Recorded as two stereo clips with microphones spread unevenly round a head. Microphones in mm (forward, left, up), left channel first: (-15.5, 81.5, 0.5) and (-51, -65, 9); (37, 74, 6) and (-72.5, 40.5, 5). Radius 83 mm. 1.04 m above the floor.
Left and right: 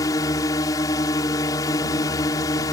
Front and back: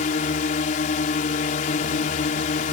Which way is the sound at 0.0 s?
5° left.